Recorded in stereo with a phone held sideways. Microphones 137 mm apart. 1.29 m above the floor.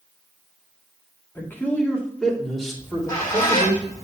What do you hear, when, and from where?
1.4 s a man speaking: 20° left (ahead or behind), 2.5 m; by 3.8 s 10° right (ahead or behind), 3.5 m
2.8 s a squeak: 20° left (ahead or behind), 5 m